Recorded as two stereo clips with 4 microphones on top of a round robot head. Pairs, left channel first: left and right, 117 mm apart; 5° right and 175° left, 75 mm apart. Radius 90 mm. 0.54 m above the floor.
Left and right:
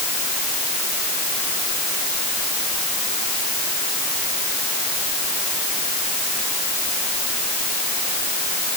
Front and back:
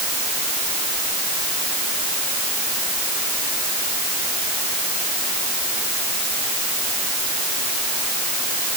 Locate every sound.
Only background noise.